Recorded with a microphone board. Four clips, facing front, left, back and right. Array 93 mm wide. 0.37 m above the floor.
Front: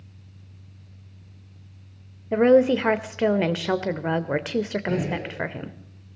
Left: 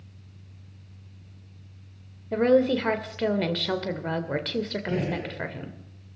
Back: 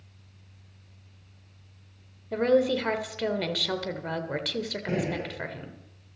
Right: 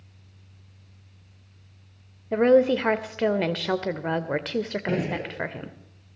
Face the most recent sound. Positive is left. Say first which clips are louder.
# right 1 dB, front 3 dB
turn(degrees=-105)